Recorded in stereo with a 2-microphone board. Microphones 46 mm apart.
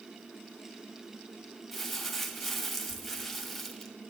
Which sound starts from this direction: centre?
Crumpling, at 1.7 s.